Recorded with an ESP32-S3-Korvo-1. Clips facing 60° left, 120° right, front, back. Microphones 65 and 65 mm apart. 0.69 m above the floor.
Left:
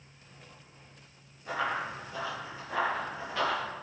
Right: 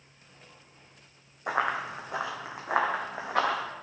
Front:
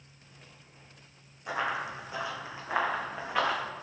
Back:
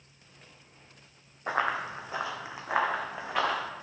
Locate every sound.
1.5 s running footsteps: 135° right, 1.9 m; by 3.6 s 90° right, 2.5 m